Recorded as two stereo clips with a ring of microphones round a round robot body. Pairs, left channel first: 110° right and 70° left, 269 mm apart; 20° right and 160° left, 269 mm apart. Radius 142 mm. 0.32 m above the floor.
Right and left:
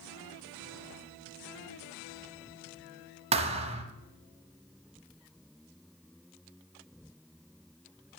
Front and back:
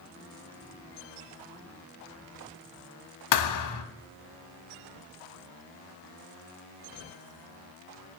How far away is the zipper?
No zipper in this recording.